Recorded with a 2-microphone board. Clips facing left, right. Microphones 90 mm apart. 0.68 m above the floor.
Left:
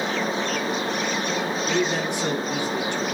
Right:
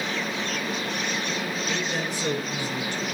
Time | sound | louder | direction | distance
1.7 | a man speaking | left 5 dB | 70° left (ahead or behind) | 7.5 m